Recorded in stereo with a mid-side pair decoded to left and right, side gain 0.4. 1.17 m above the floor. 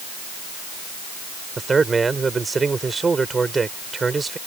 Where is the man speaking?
35° right.